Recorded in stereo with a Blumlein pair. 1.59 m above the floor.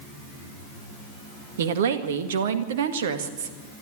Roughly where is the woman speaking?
Ahead right.